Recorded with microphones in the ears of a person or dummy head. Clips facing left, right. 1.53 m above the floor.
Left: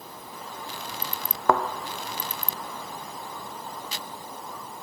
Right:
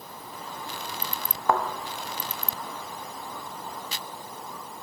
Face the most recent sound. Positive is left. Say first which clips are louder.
# left 2 dB
turn(degrees=65)  # may be behind; listen again after turning